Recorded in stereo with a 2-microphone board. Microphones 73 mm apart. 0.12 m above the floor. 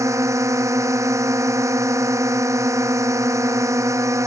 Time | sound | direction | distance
0.0 | a drone | 40° right (ahead or behind) | ?